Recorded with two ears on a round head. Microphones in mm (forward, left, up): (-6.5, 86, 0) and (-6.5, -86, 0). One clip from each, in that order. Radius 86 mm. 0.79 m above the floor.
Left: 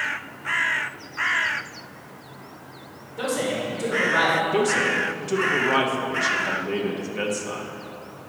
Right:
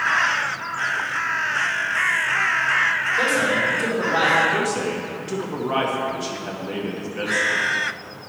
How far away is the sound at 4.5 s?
About 1.1 m.